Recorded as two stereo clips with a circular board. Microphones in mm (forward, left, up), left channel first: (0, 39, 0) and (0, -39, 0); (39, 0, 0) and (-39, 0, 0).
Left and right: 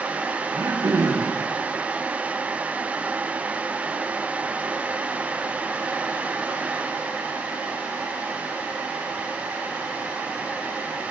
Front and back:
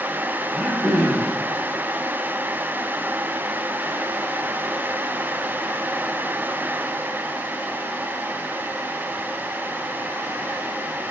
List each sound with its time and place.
0.5 s throat clearing: 85° right, 7.5 m